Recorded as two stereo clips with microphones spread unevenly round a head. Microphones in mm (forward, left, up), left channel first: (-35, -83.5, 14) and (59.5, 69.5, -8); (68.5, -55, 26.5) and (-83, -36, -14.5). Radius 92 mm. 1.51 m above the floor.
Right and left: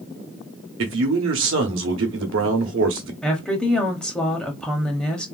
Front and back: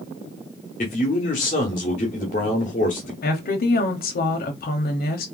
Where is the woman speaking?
35° right, 0.9 m.